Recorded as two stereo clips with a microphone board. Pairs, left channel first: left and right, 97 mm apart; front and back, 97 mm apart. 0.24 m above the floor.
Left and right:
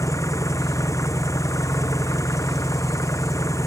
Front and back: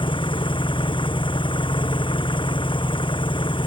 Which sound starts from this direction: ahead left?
An engine running, at 0.0 s.